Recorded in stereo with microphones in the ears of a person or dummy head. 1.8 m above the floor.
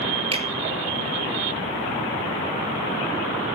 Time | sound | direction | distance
0.3 | a finger snap | 35° right (ahead or behind) | 3 m